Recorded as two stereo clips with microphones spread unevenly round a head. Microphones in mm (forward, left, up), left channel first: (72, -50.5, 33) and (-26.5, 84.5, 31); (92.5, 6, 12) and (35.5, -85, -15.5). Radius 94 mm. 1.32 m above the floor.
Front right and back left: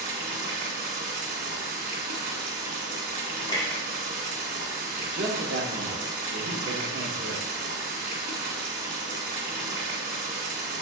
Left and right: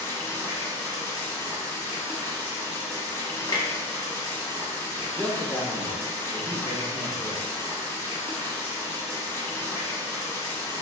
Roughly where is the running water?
Left.